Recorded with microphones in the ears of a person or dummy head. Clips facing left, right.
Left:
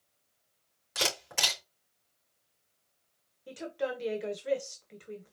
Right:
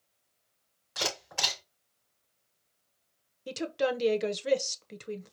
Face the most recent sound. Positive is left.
turn(degrees=-60)  # may be behind; listen again after turning